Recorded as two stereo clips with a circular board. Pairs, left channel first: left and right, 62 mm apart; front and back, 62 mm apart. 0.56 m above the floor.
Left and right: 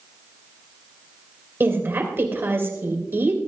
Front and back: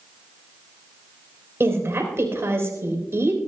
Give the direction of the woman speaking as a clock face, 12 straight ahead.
5 o'clock.